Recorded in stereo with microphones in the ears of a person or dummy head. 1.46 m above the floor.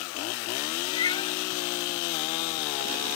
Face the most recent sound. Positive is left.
turn(degrees=25)  # may be behind; listen again after turning